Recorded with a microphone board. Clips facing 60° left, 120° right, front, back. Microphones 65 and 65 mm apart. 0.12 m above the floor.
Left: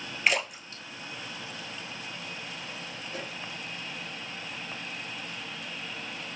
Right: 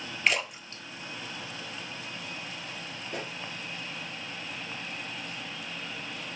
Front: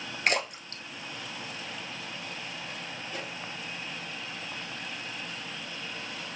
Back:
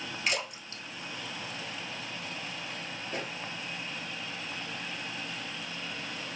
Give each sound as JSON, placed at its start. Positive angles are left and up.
{"t": 0.3, "sound": "a splash", "azimuth_deg": -25, "distance_m": 0.9}
{"t": 3.1, "sound": "a pop", "azimuth_deg": -140, "distance_m": 2.0}